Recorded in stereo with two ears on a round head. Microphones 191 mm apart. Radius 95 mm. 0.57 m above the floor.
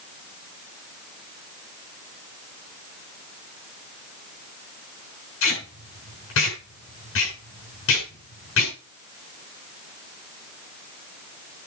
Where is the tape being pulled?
65° left (ahead or behind), 7 m.